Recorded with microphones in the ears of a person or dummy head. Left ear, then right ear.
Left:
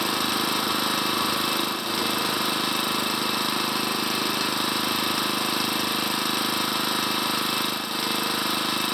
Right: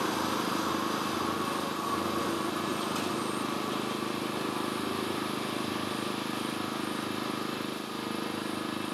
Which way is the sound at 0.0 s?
55° left (ahead or behind).